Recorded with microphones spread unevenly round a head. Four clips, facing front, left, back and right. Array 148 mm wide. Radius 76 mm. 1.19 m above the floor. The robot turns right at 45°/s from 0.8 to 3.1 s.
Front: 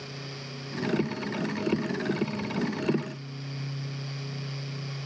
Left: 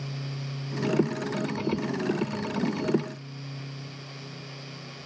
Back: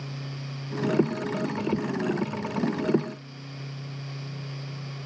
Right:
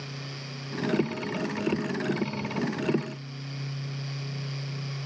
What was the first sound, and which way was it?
Only background noise.